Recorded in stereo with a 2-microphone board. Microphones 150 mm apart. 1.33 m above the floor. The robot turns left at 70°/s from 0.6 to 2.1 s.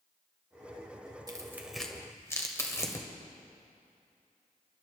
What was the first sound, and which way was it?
Tearing paper, 30° right (ahead or behind).